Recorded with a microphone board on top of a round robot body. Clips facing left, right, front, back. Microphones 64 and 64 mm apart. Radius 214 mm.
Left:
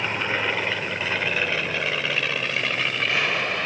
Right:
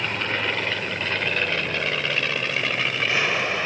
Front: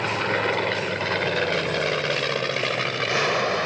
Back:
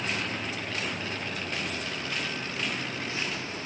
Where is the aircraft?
15° left; by 3.7 s 5° right.